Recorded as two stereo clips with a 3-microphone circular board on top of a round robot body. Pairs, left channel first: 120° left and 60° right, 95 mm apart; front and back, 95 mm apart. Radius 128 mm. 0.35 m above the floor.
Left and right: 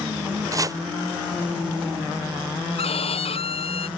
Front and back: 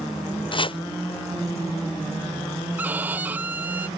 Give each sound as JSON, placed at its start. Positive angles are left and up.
{"t": 0.5, "sound": "chopping", "azimuth_deg": -10}
{"t": 2.8, "sound": "a violin", "azimuth_deg": 105}